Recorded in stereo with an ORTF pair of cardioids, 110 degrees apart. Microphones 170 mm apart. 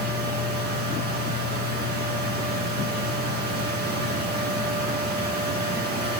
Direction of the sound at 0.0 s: 60° right.